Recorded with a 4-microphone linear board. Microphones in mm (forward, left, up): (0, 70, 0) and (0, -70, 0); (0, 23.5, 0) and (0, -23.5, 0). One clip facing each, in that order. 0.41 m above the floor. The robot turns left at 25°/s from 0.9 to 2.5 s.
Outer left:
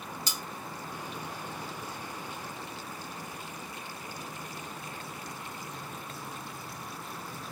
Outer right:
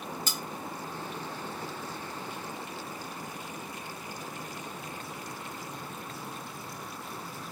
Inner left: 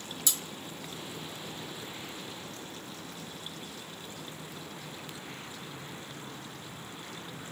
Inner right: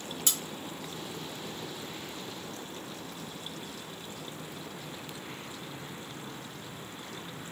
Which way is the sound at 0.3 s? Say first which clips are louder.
Outer right 2 dB, inner right 1 dB; 50° right (ahead or behind).